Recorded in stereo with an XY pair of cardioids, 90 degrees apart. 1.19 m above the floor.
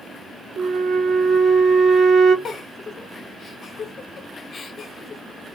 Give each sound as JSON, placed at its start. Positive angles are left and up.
{"t": 0.6, "sound": "a flute", "azimuth_deg": -50, "distance_m": 1.2}
{"t": 2.5, "sound": "a giggle", "azimuth_deg": 50, "distance_m": 1.1}